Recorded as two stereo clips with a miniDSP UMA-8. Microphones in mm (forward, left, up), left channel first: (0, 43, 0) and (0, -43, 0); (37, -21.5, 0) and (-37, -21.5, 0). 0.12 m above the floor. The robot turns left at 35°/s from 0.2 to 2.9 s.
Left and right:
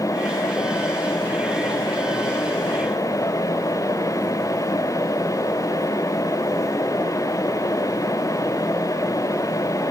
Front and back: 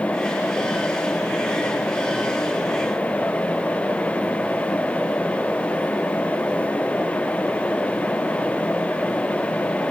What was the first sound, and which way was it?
Only background noise.